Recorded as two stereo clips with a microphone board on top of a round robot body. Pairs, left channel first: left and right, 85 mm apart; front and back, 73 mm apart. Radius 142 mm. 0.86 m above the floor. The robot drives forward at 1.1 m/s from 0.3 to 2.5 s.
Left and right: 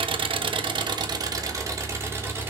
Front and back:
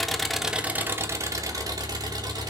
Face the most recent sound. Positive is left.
turn(degrees=-155)